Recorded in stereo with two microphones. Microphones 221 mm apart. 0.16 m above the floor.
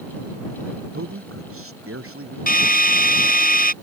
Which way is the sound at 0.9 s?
80° right.